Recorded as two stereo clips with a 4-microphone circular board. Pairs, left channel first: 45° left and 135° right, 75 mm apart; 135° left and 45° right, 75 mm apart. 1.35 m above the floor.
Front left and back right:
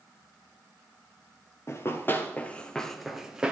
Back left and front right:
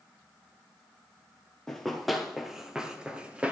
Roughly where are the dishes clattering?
No dishes clattering in this recording.